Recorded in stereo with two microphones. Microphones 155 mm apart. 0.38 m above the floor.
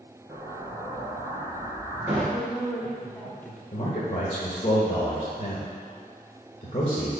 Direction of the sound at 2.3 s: 10° left (ahead or behind).